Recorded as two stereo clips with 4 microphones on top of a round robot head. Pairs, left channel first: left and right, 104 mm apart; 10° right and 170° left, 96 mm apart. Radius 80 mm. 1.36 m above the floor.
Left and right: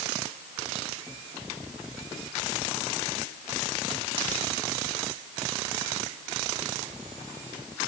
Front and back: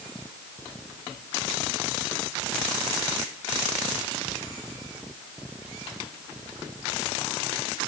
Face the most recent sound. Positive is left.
No sound to turn to.